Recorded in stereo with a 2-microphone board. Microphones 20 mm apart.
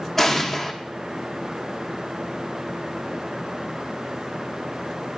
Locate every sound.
0.2 s an explosion: 15° left (ahead or behind), 0.8 m